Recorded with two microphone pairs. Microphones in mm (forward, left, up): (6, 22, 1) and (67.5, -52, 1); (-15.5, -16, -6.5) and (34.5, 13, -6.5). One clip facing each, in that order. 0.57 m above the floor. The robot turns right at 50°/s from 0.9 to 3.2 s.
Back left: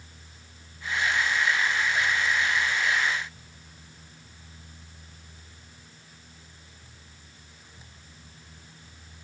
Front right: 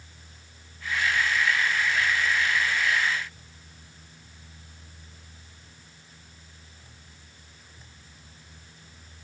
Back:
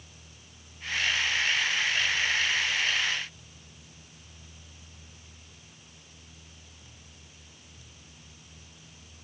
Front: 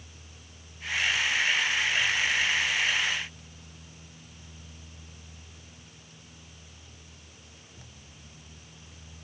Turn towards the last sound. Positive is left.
No sound to turn to.